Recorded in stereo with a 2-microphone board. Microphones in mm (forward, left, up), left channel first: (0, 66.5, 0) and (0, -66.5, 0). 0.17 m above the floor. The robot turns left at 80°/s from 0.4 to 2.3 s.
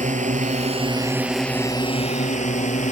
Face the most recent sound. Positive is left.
turn(degrees=65)  # may be behind; listen again after turning